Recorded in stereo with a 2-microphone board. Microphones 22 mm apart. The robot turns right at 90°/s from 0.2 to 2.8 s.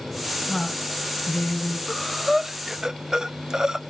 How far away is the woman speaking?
About 2 m.